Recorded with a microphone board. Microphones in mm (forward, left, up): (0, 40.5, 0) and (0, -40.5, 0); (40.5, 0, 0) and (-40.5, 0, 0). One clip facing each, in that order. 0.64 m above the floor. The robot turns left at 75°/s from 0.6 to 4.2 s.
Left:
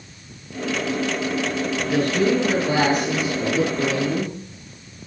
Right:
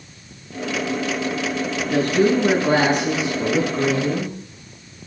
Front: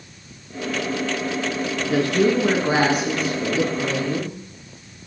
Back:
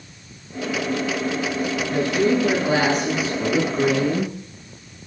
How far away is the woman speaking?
About 9 m.